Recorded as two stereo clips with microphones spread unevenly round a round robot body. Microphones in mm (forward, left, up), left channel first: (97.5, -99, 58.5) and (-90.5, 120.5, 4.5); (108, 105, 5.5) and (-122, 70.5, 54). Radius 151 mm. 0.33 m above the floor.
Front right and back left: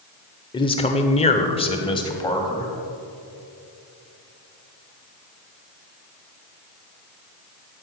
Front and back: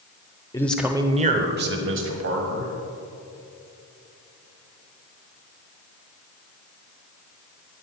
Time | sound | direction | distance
0.5 | a man speaking | 30° left | 1.0 m